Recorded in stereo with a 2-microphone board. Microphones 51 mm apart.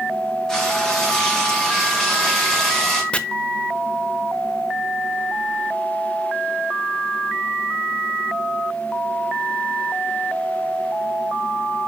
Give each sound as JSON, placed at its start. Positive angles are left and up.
{"t": 0.5, "sound": "frying", "side_deg": 10, "distance_m": 2.5}
{"t": 3.1, "sound": "chopping", "side_deg": 20, "distance_m": 0.7}